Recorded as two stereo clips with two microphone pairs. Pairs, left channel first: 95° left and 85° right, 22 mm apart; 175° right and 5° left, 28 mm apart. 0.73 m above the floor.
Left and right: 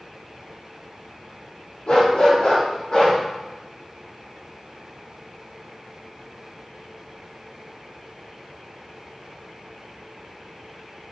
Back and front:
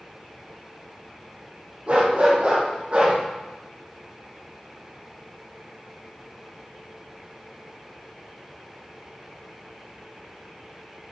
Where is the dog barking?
55° left, 7 m.